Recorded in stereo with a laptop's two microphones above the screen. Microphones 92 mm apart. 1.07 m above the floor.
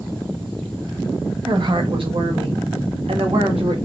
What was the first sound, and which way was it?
A woman speaking, 50° right (ahead or behind).